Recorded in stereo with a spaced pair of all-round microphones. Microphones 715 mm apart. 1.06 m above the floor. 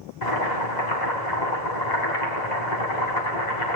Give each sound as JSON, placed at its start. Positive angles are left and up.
{"t": 0.2, "sound": "boiling", "side_deg": 75, "distance_m": 4.0}